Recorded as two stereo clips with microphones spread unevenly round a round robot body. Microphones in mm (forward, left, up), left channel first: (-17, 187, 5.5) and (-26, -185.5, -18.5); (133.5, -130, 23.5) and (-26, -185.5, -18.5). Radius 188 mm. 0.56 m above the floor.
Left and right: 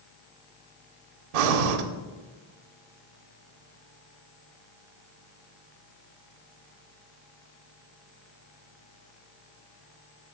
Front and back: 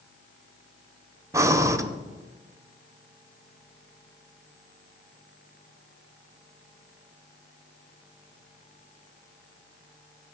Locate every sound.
1.3 s breathing: 80° right, 0.7 m